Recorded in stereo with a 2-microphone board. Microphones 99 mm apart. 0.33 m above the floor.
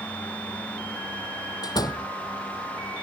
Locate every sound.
1.6 s a door slam: 45° left (ahead or behind)